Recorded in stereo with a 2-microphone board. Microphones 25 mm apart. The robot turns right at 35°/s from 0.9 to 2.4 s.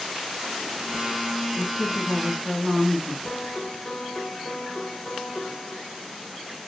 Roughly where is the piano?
Left.